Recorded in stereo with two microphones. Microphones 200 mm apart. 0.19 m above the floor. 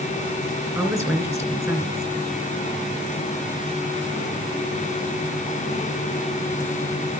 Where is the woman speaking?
15° right (ahead or behind), 2.5 m.